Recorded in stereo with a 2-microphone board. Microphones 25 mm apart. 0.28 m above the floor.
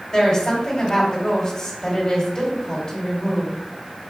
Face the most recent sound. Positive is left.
turn(degrees=30)  # may be behind; listen again after turning